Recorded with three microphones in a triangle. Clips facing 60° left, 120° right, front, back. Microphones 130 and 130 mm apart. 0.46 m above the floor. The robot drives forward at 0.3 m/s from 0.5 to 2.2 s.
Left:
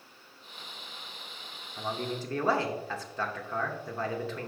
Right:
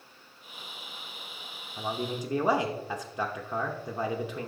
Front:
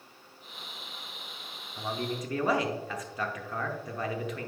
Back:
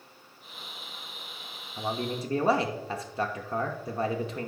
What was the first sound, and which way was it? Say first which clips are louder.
A man speaking: right 1 dB, back 2 dB; 175° right.